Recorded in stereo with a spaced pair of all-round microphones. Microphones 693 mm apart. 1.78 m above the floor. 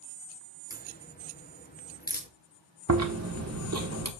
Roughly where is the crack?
Centre.